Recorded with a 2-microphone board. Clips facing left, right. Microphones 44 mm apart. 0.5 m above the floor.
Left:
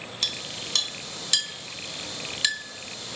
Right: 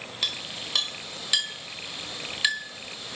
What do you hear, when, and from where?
0.2 s a clink: 15° right (ahead or behind), 1.4 m